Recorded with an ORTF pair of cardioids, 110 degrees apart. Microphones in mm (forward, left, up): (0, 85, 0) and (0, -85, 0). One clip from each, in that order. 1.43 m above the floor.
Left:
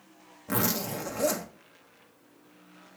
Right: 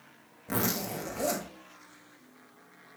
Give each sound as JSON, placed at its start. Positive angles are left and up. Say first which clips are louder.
{"t": 0.5, "sound": "a zipper", "louder": "left 2 dB", "azimuth_deg": 15, "distance_m": 2.0}